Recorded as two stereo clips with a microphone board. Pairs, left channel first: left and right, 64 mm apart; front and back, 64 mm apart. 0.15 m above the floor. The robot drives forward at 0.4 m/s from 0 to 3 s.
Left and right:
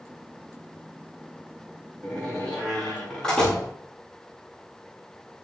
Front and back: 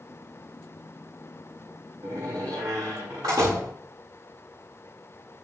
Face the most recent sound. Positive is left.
turn(degrees=170)